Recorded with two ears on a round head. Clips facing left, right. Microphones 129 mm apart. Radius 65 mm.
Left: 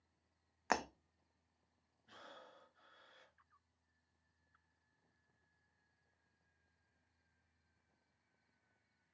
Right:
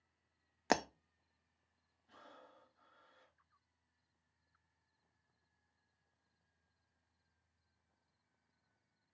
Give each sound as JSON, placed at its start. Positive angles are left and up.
{"t": 0.7, "sound": "breaking glass", "side_deg": -35, "distance_m": 0.6}
{"t": 2.1, "sound": "breathing", "side_deg": 75, "distance_m": 3.5}